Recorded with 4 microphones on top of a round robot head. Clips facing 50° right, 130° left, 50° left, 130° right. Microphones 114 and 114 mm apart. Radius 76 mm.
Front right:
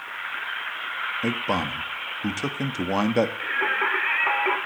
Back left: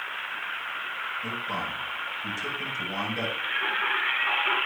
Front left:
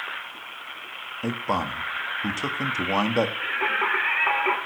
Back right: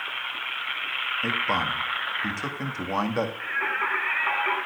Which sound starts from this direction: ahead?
Singing, at 3.4 s.